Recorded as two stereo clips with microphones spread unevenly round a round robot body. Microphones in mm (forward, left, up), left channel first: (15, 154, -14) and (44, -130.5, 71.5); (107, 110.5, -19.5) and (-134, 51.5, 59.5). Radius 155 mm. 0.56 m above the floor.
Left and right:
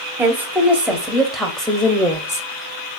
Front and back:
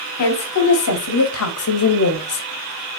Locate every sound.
0.2 s a woman speaking: straight ahead, 3 m; by 2.4 s 20° left, 1.7 m